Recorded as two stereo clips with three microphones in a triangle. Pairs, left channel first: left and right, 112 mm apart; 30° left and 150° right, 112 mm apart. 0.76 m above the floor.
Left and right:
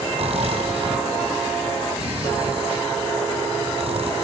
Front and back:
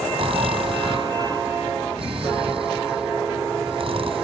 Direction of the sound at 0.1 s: 115° right.